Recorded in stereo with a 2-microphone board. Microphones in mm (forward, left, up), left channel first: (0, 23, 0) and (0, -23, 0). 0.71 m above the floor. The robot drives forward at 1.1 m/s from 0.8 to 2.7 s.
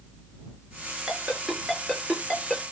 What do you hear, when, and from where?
1.1 s a ringtone: 10° right (ahead or behind), 5.5 m; by 2.6 s 5° right (ahead or behind), 7 m